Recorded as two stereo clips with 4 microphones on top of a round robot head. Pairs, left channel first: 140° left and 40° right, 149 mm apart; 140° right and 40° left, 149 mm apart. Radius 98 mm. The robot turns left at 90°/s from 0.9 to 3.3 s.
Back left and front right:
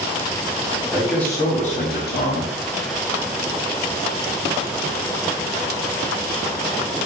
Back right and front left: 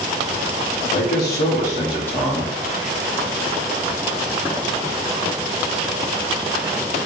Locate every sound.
0.9 s a man speaking: 115° right, 0.9 m; by 2.5 s 105° left, 0.9 m